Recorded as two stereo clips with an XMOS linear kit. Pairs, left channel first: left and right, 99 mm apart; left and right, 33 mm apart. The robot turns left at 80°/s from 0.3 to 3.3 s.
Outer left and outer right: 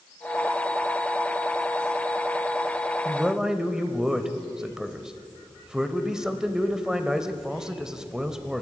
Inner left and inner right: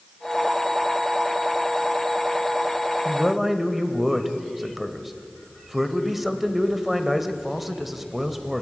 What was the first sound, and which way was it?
A man speaking, 15° right (ahead or behind).